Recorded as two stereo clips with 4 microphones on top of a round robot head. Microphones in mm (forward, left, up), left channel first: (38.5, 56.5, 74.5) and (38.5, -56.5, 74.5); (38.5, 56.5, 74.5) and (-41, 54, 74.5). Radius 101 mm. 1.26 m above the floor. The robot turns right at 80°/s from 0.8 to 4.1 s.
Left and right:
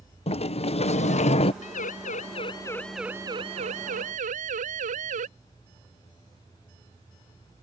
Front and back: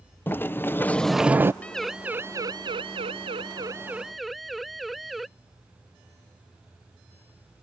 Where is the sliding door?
65° left; by 1.5 s 125° left.